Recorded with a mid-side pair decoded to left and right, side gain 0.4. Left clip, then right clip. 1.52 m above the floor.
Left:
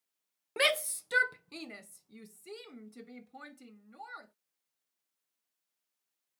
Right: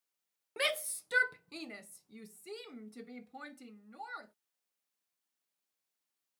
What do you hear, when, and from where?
0.6 s a shout: 40° left; by 4.3 s 25° right